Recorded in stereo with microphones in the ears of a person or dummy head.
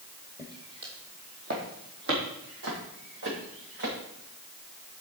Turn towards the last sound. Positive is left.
turn(degrees=-60)  # may be behind; listen again after turning